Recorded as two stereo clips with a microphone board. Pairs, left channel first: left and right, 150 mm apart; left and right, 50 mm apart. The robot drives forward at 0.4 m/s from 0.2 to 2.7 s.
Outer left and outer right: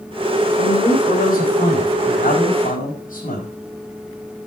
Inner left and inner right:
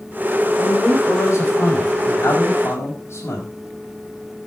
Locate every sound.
0.6 s a man speaking: 75° left (ahead or behind), 5 m; by 3.5 s 65° left (ahead or behind), 5.5 m